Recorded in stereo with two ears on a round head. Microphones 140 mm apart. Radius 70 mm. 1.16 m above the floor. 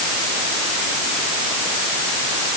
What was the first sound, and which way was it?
Only background noise.